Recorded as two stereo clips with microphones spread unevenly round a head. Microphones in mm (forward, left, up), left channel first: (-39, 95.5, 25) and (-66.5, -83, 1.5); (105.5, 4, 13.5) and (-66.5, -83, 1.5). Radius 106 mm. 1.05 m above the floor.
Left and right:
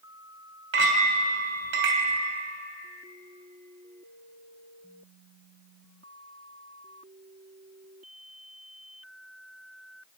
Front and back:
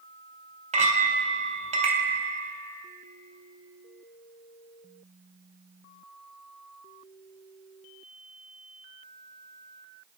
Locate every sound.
0.7 s a clink: 100° right, 2.5 m